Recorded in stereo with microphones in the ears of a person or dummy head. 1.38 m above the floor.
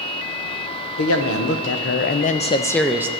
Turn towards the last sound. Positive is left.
turn(degrees=-10)  # may be behind; listen again after turning